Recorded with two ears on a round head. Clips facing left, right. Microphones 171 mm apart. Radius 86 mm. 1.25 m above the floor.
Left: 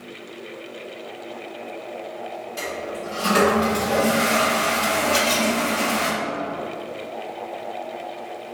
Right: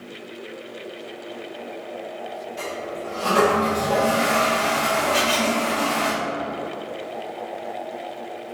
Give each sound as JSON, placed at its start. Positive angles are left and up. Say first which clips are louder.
{"t": 2.6, "sound": "a toilet flushing", "louder": "left 1 dB", "side_deg": 70, "distance_m": 1.7}
{"t": 5.1, "sound": "a camera shutter", "louder": "even", "side_deg": 60, "distance_m": 1.6}